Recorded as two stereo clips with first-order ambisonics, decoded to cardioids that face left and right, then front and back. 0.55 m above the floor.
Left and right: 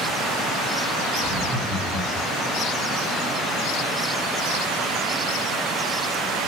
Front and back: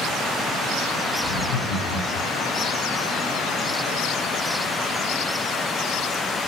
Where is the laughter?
15° right, 5.5 m.